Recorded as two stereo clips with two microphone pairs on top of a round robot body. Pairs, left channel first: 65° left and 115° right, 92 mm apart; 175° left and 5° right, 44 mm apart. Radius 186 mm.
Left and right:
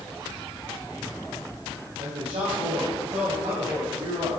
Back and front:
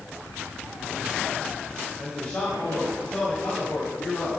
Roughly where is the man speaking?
Right.